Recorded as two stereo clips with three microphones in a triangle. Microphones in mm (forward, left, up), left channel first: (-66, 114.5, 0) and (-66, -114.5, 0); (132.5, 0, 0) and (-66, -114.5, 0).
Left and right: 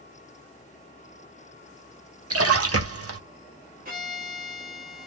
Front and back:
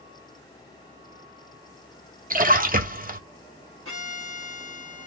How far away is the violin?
About 1.4 m.